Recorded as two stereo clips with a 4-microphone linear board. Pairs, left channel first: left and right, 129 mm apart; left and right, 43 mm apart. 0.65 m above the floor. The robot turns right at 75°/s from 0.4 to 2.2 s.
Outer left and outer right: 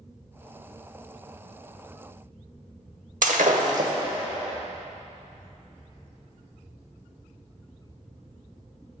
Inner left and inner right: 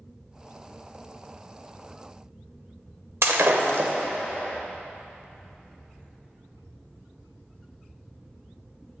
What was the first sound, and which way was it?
Breaking glass, 80° right.